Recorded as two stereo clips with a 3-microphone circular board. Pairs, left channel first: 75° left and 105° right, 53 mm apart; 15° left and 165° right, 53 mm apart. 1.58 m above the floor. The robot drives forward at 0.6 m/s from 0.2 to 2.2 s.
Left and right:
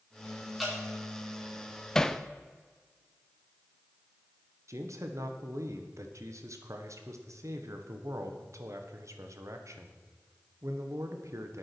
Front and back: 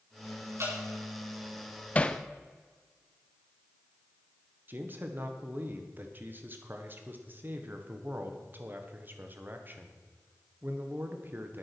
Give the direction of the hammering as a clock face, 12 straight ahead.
12 o'clock.